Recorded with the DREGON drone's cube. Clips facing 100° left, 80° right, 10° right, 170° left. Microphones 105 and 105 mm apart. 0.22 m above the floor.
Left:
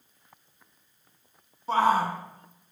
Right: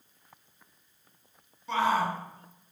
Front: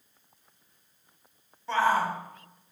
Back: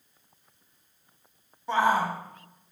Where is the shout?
105° left, 1.3 m.